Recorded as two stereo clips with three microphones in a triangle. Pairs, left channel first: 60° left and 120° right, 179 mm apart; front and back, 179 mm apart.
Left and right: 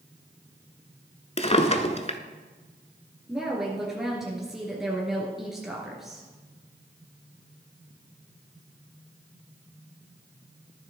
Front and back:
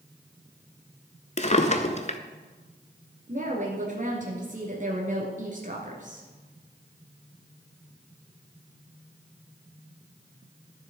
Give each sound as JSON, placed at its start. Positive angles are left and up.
{"t": 1.4, "sound": "a drawer", "azimuth_deg": 25, "distance_m": 0.7}
{"t": 3.3, "sound": "a woman speaking", "azimuth_deg": 150, "distance_m": 1.9}